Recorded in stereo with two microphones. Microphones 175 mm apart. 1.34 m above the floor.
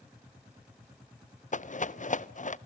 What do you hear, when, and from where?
1.5 s a rattle: 45° left (ahead or behind), 0.5 m